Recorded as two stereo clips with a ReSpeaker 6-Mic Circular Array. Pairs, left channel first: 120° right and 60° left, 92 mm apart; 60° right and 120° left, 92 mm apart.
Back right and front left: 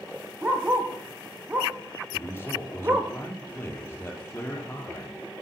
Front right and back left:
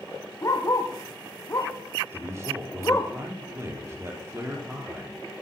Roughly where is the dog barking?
Ahead.